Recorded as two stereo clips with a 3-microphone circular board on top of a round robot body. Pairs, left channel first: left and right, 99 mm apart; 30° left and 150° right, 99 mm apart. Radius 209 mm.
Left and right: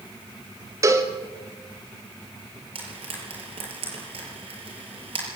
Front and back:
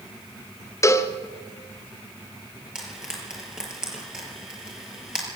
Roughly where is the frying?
Ahead right.